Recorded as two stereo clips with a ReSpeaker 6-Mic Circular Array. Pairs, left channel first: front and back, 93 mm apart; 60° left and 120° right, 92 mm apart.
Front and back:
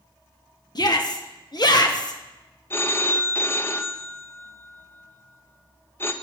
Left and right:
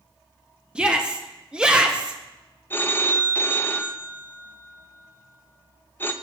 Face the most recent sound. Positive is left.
turn(degrees=25)